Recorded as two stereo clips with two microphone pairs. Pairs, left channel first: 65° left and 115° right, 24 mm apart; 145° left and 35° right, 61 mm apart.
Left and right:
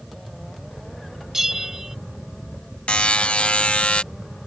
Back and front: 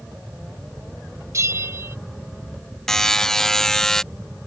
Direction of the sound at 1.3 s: 50° right.